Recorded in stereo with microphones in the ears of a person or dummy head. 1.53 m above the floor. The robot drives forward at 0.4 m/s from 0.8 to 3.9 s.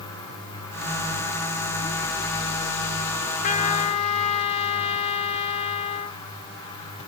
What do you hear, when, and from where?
3.4 s a trumpet: 40° left (ahead or behind), 0.8 m; by 6.2 s 35° left (ahead or behind), 1.0 m